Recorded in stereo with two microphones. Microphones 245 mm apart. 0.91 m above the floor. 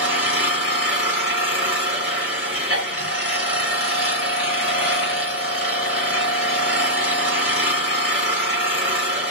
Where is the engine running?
70° left (ahead or behind), 1.8 m.